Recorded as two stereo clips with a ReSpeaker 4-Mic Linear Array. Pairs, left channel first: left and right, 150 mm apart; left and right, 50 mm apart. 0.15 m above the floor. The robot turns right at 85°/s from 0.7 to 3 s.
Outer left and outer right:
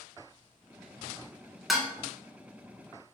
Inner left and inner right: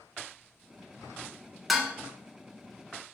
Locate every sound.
1.7 s dishes clattering: centre (ahead or behind), 0.8 m; by 1.9 s 10° right (ahead or behind), 0.8 m